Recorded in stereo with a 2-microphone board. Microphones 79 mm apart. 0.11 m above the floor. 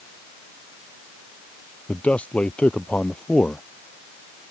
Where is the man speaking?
15° left (ahead or behind).